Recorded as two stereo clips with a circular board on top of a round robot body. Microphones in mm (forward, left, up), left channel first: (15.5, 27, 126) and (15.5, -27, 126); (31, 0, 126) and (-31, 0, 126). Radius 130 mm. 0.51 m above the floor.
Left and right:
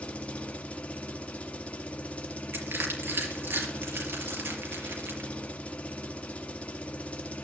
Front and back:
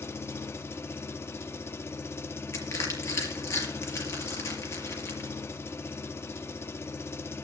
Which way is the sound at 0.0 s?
30° left.